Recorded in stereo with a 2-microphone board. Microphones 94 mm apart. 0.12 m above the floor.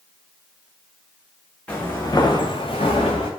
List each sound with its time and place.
1.7 s footsteps: 15° left (ahead or behind), 0.8 m; by 3.3 s 85° left, 1.0 m